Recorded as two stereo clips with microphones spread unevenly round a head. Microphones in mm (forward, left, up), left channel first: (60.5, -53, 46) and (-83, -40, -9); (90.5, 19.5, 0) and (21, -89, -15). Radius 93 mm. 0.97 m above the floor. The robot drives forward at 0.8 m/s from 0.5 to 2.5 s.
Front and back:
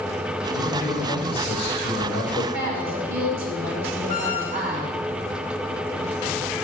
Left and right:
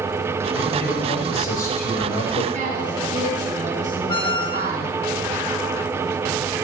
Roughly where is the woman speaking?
Behind.